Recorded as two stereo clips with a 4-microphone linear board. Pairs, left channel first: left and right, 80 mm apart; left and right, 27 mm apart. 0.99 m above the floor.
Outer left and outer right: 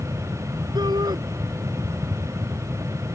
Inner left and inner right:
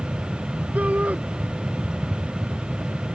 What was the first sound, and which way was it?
A shout, 65° right (ahead or behind).